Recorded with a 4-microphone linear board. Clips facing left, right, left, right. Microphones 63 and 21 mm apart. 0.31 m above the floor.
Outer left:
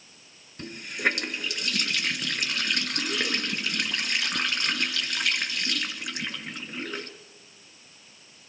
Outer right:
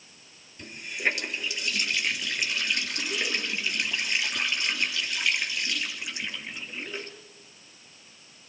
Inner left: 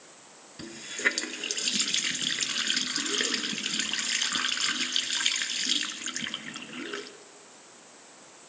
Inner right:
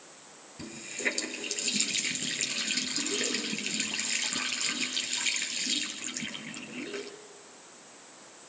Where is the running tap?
60° left (ahead or behind), 3 m.